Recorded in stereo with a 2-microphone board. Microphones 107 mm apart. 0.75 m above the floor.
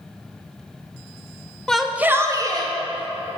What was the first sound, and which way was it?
A shout, 5° left (ahead or behind).